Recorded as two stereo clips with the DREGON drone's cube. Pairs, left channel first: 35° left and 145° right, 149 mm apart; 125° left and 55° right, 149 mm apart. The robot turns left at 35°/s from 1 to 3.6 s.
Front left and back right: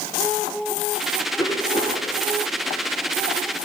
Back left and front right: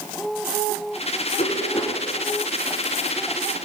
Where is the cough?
95° left, 2.5 m; by 2.1 s 70° left, 2.5 m.